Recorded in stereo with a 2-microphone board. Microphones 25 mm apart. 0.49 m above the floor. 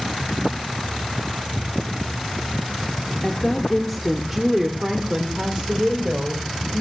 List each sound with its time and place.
3.2 s a woman speaking: 20° left (ahead or behind), 1.2 m; by 6.8 s 50° right (ahead or behind), 2 m